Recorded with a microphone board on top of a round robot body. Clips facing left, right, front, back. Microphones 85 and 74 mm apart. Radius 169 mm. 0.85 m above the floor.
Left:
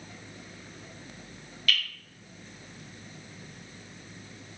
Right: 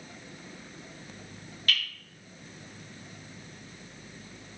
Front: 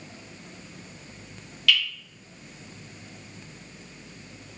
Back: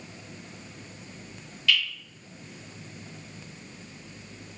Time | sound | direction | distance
1.7 | dripping | 30° right | 0.9 m